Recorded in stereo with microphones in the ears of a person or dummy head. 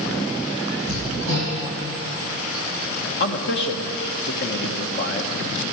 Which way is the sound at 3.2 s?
65° left (ahead or behind).